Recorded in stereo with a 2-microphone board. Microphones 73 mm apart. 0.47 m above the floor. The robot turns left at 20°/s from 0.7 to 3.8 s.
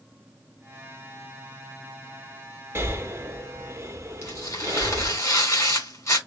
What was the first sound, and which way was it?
Breathing, 35° right (ahead or behind).